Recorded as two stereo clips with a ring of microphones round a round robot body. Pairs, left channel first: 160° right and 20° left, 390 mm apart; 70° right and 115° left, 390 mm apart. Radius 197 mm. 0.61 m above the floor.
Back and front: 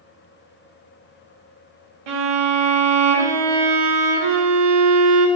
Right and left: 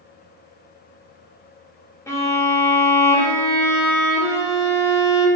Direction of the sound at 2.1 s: 15° left.